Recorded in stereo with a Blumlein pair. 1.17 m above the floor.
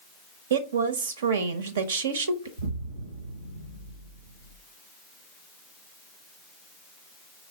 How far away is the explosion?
About 1.4 m.